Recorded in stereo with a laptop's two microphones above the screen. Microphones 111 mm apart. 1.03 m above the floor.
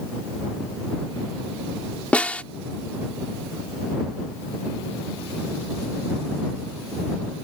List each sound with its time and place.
2.1 s a snare drum: 10° left (ahead or behind)